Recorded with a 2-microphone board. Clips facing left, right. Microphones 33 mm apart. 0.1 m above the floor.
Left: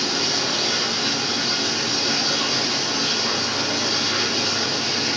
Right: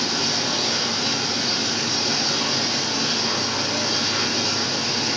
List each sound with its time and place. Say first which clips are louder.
0.0 s running water: left 1 dB; 15° left (ahead or behind), 9 m